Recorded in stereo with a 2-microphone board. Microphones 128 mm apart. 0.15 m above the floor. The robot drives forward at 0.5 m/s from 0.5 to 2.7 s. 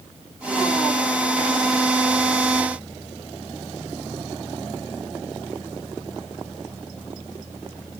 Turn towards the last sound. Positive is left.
No sound to turn to.